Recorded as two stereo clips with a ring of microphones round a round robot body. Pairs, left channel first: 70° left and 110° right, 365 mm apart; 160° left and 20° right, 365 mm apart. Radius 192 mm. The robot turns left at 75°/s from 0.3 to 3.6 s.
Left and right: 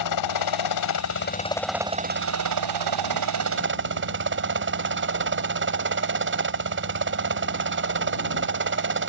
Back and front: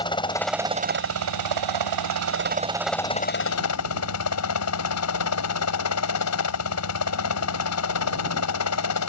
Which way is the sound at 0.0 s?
80° left.